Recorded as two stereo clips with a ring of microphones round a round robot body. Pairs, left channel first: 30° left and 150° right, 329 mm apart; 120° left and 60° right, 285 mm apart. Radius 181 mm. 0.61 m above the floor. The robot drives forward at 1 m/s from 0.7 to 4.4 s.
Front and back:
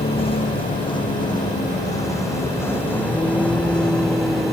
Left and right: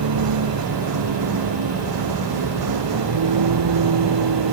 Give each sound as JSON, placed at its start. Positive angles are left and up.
{"t": 0.0, "sound": "a vehicle", "azimuth_deg": -45}